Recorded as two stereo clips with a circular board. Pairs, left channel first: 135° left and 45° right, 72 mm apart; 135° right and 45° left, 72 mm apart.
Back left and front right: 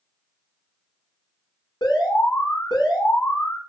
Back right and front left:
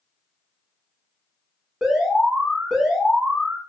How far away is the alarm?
About 6.5 m.